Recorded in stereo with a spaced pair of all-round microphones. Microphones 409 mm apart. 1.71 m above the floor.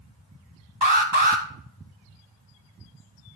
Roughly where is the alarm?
Right.